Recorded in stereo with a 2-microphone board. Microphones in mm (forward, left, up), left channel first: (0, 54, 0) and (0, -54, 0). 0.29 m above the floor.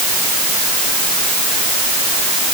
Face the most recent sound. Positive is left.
No sound to turn to.